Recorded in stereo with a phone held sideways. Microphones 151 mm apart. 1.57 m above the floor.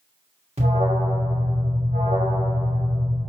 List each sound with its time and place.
0.6 s an alarm: 45° right (ahead or behind), 2.5 m